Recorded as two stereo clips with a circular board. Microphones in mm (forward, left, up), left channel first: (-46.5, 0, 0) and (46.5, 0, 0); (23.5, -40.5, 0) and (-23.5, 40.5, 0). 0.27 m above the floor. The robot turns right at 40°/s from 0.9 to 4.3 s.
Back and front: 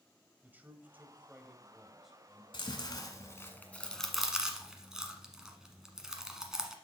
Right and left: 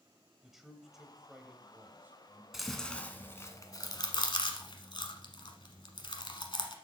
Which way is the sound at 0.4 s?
35° left.